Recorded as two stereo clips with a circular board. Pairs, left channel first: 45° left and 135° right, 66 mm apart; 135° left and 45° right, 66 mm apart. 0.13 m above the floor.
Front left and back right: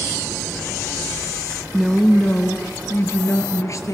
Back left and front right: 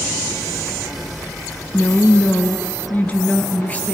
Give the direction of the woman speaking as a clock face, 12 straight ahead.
7 o'clock.